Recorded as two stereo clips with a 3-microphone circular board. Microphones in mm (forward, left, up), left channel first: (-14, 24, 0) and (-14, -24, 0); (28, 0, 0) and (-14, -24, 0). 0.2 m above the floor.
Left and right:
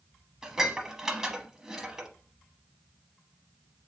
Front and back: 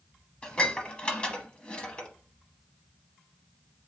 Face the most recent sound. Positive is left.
turn(degrees=-20)